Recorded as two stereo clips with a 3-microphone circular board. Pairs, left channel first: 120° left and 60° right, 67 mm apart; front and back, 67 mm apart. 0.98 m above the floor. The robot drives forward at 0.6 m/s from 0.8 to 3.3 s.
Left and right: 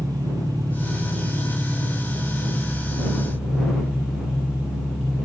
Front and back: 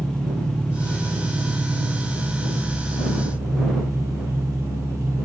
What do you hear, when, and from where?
0.0 s an engine running: 80° right, 1.1 m; by 5.2 s 140° right, 1.7 m